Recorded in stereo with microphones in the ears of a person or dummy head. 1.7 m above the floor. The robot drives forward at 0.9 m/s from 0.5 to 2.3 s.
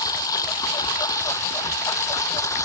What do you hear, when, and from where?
0.0 s a lawn mower: 20° left (ahead or behind)